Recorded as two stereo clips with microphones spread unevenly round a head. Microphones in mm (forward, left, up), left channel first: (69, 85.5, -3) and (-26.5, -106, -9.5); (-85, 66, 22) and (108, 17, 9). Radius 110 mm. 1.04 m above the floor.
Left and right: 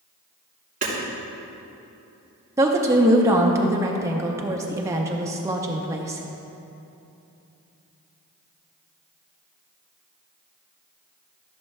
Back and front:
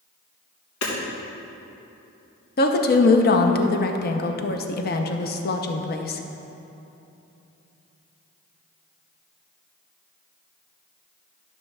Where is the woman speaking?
175° left, 0.6 m.